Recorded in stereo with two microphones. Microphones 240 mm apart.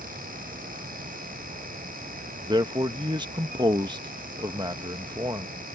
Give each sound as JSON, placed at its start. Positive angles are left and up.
{"t": 2.4, "sound": "a man speaking", "side_deg": -20}